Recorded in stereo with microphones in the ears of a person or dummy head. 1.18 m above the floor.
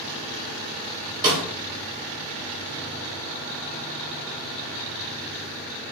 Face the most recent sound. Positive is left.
turn(degrees=-25)  # may be behind; listen again after turning